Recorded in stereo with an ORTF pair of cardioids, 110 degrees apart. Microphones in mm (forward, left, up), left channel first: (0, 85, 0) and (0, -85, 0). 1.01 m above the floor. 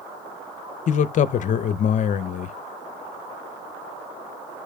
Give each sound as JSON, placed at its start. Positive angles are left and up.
{"t": 0.9, "sound": "a man speaking", "azimuth_deg": 50, "distance_m": 0.6}